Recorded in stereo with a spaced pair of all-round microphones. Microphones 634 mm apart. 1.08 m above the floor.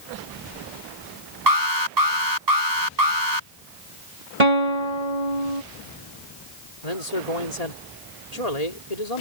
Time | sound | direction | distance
1.5 | an alarm | 90° right | ?
4.4 | a guitar | 75° right (ahead or behind) | ?
6.8 | a man speaking | 70° left (ahead or behind) | ?